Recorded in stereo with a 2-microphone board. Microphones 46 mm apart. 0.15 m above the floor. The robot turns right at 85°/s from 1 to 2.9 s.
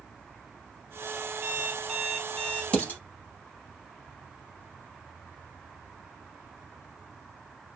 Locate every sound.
1.4 s an alarm clock: 65° right, 1.4 m; by 2.6 s 40° left, 1.4 m
2.7 s dishes clattering: 20° left (ahead or behind), 2 m; by 3.0 s 35° left (ahead or behind), 2 m